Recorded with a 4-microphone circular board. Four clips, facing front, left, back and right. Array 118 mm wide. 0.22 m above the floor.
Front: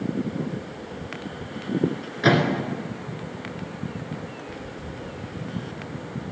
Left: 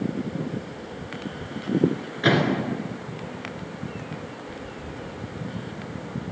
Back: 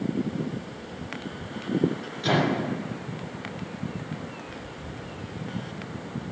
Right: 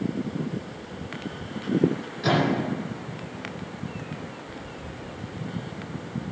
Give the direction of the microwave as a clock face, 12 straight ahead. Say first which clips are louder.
Left 2 dB, front 4 dB; 11 o'clock.